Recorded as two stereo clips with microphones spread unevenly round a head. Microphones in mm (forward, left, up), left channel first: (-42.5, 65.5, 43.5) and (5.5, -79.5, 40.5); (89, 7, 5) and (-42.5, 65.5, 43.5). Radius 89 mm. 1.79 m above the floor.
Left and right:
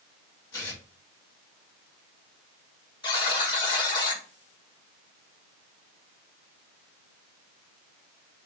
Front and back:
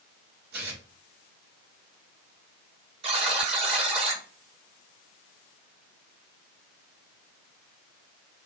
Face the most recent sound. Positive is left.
turn(degrees=160)